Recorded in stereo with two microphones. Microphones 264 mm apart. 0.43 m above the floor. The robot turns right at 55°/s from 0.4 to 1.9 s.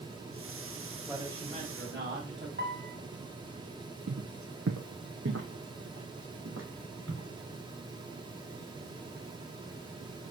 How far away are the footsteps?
About 0.8 m.